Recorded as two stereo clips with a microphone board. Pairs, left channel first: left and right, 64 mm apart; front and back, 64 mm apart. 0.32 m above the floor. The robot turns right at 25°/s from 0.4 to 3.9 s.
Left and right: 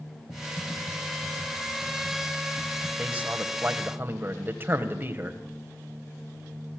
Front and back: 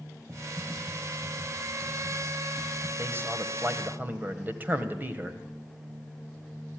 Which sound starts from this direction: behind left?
Typing on a keyboard, at 0.3 s.